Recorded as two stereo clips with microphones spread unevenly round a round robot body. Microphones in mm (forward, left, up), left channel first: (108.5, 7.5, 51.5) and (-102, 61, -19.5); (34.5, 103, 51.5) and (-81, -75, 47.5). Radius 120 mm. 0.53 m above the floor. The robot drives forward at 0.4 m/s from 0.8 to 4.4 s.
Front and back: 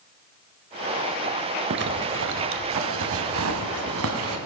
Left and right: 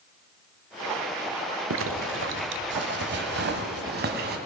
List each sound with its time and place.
1.7 s a zipper: 150° right, 0.7 m; by 4.4 s 165° right, 1.7 m